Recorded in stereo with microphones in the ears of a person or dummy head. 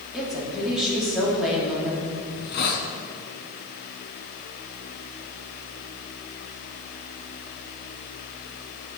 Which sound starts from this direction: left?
A hiss, at 2.3 s.